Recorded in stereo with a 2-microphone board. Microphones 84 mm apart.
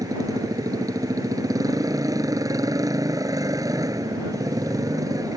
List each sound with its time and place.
0.0 s a motorcycle: 40° right (ahead or behind)